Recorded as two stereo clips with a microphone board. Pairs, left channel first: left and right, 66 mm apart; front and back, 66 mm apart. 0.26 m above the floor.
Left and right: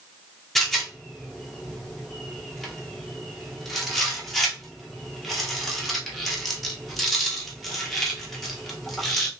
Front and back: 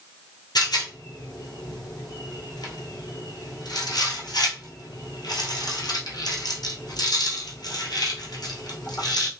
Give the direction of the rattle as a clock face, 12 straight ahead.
12 o'clock.